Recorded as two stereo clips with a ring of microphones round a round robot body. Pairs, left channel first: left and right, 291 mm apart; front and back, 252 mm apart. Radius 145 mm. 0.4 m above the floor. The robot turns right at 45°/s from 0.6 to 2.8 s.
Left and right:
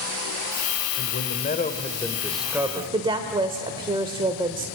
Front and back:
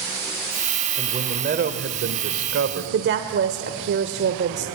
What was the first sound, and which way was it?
A man speaking, 115° left.